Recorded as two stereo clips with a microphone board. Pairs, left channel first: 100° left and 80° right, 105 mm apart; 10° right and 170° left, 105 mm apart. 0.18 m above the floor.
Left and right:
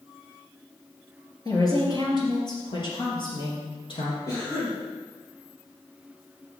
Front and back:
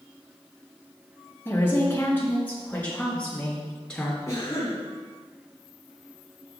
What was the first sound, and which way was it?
A woman speaking, 55° left.